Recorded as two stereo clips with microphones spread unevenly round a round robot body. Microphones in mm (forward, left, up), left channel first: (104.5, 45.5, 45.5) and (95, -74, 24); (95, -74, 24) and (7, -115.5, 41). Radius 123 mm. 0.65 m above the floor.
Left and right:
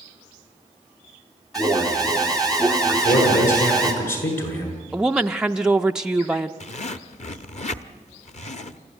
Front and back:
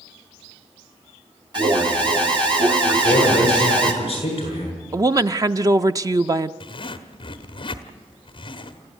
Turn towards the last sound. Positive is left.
turn(degrees=55)